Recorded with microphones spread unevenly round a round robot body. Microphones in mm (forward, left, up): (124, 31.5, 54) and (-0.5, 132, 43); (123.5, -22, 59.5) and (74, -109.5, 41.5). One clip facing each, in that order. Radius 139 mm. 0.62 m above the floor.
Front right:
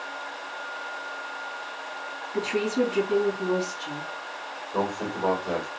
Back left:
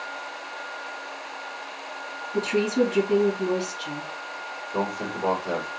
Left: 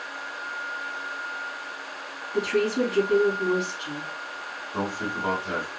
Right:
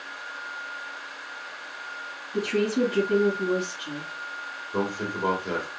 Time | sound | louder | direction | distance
2.3 | a woman speaking | back left 3 dB, left 1 dB | 175° right | 3 m
4.7 | a man speaking | even, right 1 dB | 135° right | 2 m